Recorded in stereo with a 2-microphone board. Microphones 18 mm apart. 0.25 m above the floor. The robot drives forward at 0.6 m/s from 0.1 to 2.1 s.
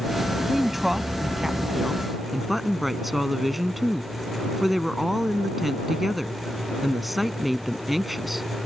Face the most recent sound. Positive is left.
turn(degrees=-10)  # may be behind; listen again after turning